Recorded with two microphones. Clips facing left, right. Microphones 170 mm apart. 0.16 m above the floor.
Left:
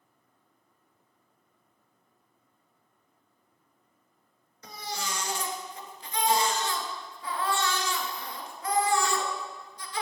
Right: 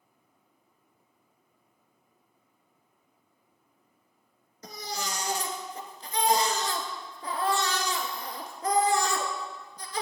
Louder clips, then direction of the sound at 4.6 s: Right 1 dB; 40° right (ahead or behind).